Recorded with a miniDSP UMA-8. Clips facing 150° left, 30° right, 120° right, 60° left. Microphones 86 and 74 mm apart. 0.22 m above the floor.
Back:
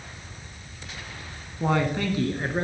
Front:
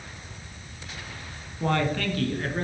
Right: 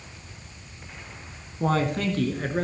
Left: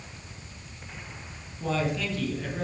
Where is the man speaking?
135° right, 2 m; by 2.6 s 150° right, 3 m.